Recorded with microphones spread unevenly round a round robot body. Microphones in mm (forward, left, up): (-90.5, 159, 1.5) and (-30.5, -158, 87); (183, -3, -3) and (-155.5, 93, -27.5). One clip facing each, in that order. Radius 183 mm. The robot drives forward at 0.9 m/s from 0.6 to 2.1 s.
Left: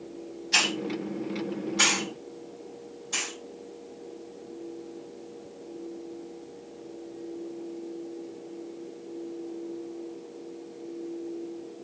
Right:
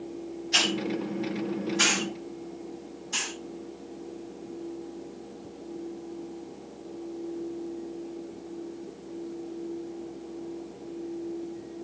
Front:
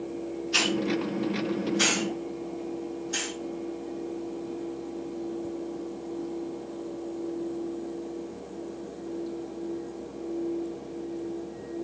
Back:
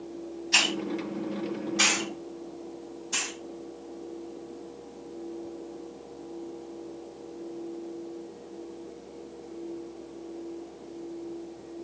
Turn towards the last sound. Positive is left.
turn(degrees=170)